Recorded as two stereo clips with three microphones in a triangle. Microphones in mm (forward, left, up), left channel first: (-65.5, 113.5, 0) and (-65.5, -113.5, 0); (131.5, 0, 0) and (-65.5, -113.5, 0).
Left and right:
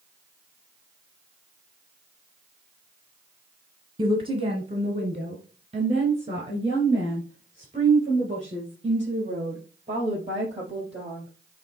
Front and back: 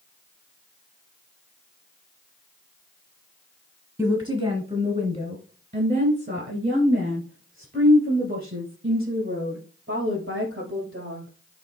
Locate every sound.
4.0 s a woman speaking: 100° right, 1.3 m; by 11.3 s 150° right, 5.5 m